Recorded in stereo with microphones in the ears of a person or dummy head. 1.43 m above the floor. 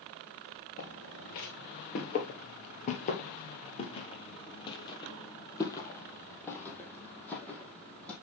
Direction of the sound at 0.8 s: 45° left (ahead or behind).